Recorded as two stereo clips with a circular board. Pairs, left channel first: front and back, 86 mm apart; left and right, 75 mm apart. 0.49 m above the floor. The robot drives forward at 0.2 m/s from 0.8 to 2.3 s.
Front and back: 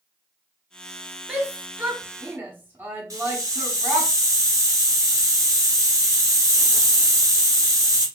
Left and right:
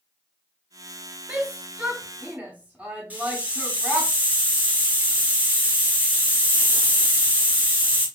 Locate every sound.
1.3 s a shout: 125° right, 0.9 m; by 4.1 s 145° right, 1.0 m
3.1 s a hiss: 150° right, 1.2 m